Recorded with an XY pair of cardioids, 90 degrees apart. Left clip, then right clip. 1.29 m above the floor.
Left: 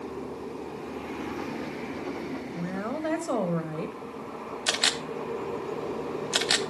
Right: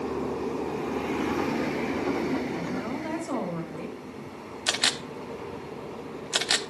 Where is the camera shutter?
Straight ahead, 1.0 m.